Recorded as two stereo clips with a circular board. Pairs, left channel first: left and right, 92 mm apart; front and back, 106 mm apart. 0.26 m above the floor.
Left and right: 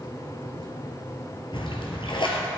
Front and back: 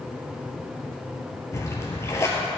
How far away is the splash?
About 1.8 m.